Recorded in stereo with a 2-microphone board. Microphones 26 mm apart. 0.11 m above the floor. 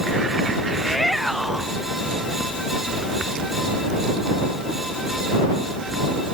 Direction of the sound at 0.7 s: Centre (ahead or behind).